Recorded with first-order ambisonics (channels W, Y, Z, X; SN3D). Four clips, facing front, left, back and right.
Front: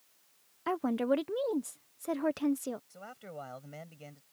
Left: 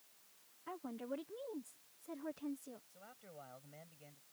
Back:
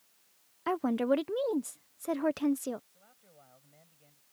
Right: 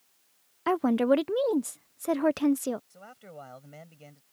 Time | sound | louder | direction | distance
0.7 | a woman speaking | right 22 dB, back 1 dB | 95° right | ?
2.9 | a man speaking | right 10 dB, front 16 dB | 35° right | ?